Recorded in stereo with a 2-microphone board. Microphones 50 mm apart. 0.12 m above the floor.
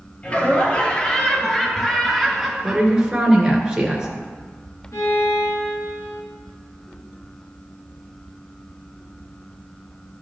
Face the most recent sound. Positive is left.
turn(degrees=75)  # may be behind; listen again after turning